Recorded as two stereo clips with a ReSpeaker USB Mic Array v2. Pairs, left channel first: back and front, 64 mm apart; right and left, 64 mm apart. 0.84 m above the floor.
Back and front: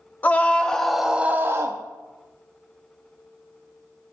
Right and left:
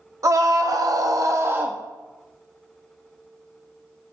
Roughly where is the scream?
Behind left.